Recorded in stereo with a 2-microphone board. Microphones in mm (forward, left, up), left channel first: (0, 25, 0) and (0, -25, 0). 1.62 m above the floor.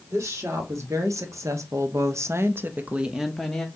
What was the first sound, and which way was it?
A woman speaking, 70° right (ahead or behind).